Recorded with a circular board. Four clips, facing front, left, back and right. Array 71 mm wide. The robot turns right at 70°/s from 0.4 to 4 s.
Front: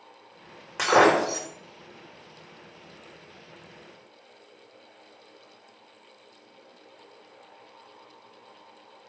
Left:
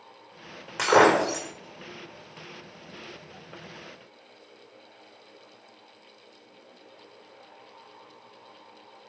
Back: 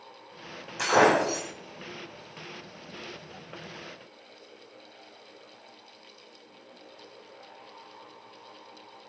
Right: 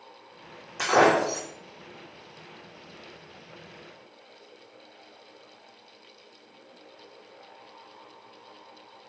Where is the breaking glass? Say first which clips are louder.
Left 2 dB, front 2 dB; 45° left, 3 m; by 1.5 s 95° left, 3 m.